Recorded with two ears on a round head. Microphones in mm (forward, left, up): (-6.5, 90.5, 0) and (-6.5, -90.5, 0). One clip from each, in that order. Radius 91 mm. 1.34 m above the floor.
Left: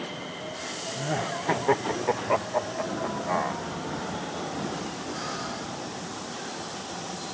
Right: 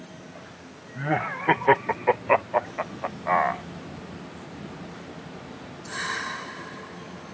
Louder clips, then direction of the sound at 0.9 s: Right 5 dB; 70° right (ahead or behind).